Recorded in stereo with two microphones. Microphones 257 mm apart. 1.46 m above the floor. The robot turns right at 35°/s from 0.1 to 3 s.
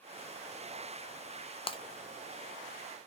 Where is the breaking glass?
20° left (ahead or behind), 0.6 m.